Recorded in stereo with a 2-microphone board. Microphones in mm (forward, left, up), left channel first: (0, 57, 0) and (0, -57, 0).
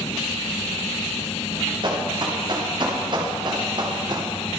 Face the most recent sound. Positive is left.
turn(degrees=-40)  # may be behind; listen again after turning